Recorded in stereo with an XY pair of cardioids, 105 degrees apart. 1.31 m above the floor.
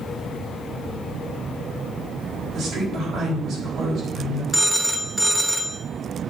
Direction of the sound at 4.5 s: 10° right.